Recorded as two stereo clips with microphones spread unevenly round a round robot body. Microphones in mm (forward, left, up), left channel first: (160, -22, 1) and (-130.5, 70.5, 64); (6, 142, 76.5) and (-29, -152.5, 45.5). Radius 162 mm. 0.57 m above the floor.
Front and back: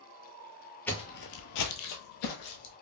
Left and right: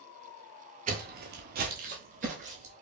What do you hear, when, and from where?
0.9 s footsteps: 130° right, 0.5 m; by 2.7 s 25° right, 1.5 m